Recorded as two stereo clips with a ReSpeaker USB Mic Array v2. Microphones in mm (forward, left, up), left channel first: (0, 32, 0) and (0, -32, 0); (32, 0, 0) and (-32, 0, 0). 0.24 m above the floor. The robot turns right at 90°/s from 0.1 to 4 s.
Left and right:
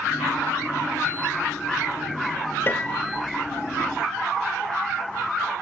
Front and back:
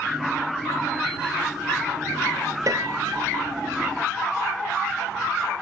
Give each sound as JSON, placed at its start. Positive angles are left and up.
{"t": 2.7, "sound": "a piano", "azimuth_deg": 145}